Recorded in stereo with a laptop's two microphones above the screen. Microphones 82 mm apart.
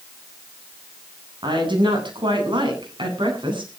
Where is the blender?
I don't hear a blender.